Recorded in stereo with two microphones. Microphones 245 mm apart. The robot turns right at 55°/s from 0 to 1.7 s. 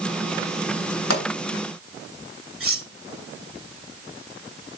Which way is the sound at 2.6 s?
60° right (ahead or behind).